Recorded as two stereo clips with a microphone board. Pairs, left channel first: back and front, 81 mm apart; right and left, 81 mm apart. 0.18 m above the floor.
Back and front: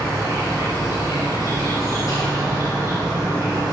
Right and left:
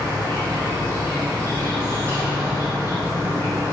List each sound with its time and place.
0.0 s an insect: 145° left, 1.4 m